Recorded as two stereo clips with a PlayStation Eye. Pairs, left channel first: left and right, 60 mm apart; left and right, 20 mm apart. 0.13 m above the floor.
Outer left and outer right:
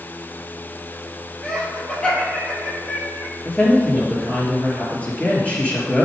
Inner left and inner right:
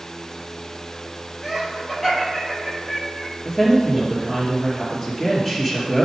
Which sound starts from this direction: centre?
Laughter, at 1.4 s.